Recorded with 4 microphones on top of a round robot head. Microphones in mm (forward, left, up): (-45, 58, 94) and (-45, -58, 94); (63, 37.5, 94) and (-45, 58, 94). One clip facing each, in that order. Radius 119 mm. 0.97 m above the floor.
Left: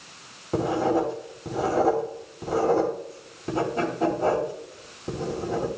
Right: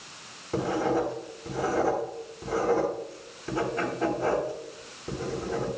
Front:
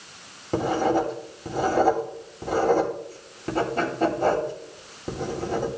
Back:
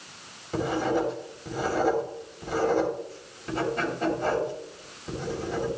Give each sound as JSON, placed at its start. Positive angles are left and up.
{"t": 0.5, "sound": "writing", "azimuth_deg": 30, "distance_m": 3.0}